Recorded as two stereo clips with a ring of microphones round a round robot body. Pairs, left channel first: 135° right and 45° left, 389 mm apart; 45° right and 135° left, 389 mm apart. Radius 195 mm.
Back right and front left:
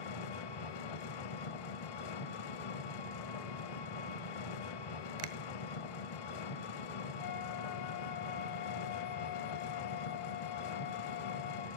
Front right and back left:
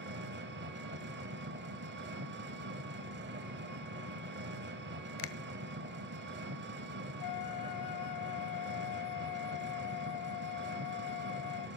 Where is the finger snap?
Straight ahead, 1.0 m.